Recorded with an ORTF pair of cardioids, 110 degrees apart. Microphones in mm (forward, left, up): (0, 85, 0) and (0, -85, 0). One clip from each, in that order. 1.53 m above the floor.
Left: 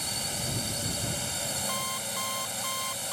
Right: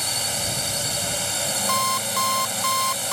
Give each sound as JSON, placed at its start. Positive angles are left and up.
{"t": 0.0, "sound": "a drone", "azimuth_deg": -45}
{"t": 1.7, "sound": "an alarm clock", "azimuth_deg": -65}